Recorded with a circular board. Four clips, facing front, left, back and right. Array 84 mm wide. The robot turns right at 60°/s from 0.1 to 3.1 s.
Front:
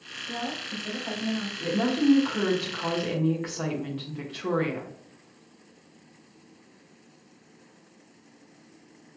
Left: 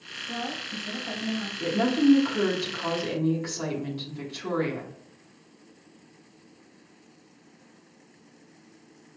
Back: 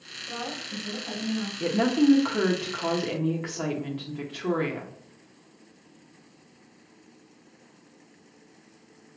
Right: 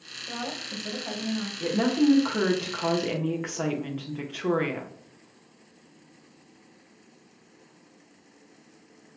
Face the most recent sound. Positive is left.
turn(degrees=-95)